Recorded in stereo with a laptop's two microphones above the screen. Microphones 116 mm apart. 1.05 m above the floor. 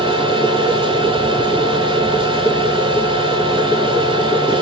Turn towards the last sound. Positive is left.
turn(degrees=-45)  # may be behind; listen again after turning